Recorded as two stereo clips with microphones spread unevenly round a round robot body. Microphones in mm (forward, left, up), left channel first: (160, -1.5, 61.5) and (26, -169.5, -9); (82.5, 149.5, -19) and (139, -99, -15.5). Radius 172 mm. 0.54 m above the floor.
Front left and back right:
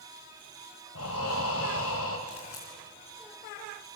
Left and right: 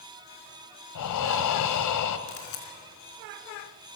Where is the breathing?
105° left, 1.7 m.